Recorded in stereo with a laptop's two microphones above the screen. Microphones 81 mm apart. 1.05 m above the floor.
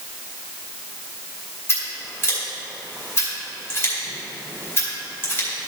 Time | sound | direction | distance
1.7 | scissors | 30° left (ahead or behind) | 2.5 m